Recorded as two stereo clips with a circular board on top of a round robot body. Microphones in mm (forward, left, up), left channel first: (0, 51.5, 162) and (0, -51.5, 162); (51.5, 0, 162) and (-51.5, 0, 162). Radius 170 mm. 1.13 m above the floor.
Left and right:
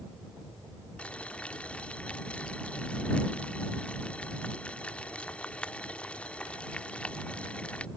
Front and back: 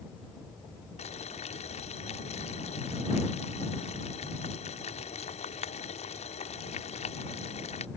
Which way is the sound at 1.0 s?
10° left.